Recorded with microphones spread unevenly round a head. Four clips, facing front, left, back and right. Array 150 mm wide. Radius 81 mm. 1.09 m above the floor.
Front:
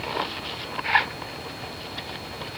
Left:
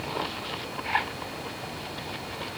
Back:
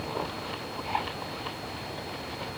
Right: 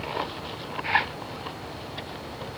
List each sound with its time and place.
Only background noise.